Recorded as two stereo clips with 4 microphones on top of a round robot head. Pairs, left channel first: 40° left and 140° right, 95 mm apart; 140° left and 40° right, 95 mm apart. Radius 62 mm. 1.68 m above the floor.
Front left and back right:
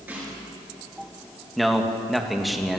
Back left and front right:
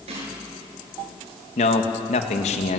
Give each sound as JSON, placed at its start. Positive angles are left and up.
{"t": 0.1, "sound": "a snare drum", "azimuth_deg": -65, "distance_m": 10.0}
{"t": 1.6, "sound": "a man speaking", "azimuth_deg": 130, "distance_m": 2.5}